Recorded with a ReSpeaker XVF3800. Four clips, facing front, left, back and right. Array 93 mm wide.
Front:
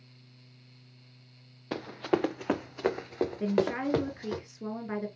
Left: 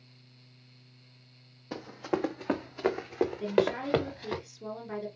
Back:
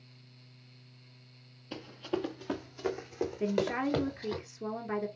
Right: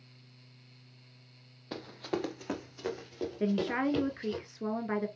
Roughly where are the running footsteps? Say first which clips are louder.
Left 4 dB, front 7 dB; ahead.